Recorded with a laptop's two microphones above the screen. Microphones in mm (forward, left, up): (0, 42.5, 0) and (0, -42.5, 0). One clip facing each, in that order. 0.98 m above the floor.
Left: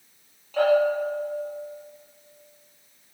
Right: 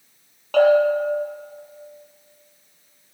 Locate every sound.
0.5 s a bell: 80° right, 5 m